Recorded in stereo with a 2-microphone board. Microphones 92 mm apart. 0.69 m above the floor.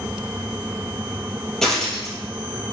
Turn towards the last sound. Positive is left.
turn(degrees=5)  # may be behind; listen again after turning